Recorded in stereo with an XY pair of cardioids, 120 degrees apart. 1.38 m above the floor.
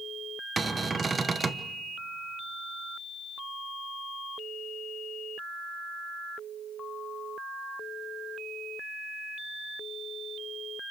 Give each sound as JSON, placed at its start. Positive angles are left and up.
{"t": 0.6, "sound": "a cupboard door", "azimuth_deg": -20, "distance_m": 1.1}